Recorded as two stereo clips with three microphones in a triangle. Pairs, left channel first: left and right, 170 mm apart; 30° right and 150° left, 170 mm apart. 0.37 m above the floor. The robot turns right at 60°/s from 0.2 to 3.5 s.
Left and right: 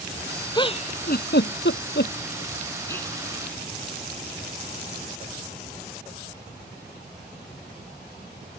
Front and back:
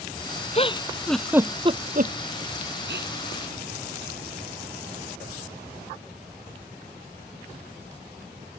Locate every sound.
0.5 s a giggle: 20° left; by 3.1 s 175° left